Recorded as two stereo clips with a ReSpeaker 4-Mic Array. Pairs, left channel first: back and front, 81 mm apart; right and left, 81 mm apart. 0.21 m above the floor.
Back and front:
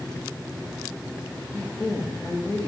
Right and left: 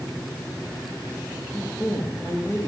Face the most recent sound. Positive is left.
turn(degrees=-135)